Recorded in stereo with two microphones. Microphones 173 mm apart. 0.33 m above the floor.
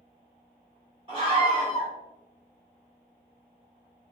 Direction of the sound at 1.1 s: 30° right (ahead or behind).